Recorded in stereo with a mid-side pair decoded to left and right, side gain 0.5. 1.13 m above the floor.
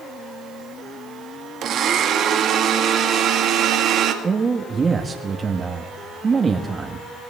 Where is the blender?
60° right, 1.9 m.